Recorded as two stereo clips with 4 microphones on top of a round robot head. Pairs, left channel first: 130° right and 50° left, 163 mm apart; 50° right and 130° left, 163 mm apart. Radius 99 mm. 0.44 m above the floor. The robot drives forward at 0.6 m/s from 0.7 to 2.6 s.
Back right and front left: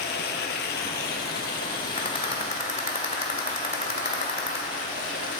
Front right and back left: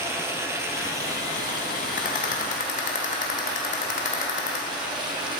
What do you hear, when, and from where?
0.0 s running water: 155° right, 1.3 m; by 5.4 s 170° right, 2.5 m
2.0 s a rattle: 75° right, 2.5 m; by 4.6 s 85° right, 2.5 m